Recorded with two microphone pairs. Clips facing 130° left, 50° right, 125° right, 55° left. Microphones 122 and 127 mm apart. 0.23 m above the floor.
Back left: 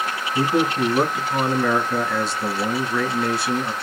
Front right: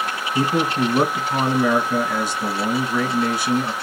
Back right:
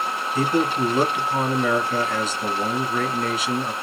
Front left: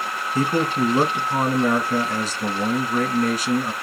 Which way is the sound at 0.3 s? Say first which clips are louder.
Even, even; 20° left.